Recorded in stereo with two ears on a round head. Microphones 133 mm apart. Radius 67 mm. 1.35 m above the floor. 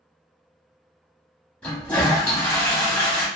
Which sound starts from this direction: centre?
A toilet flushing, at 1.6 s.